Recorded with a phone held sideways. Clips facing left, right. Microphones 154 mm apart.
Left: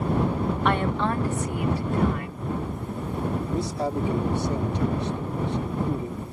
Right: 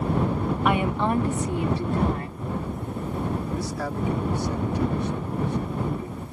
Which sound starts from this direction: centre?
A woman speaking, at 0.7 s.